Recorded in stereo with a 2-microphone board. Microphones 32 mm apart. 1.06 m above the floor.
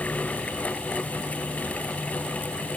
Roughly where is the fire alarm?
I don't hear a fire alarm.